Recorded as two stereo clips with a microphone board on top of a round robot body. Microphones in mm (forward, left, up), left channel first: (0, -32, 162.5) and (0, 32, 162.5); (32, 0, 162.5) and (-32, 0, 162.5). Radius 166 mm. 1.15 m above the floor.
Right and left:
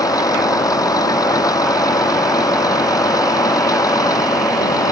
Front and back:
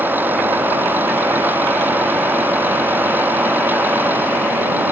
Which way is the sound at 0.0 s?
115° right.